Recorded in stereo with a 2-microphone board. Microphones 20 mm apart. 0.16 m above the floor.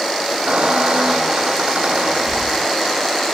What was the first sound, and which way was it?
A squeak, 80° right.